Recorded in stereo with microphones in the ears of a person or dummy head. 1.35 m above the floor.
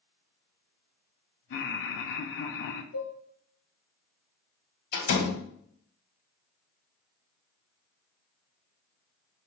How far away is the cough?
I don't hear a cough.